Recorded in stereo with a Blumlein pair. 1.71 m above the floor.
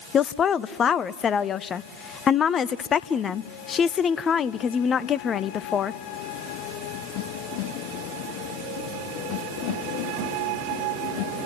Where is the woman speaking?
25° left, 0.6 m.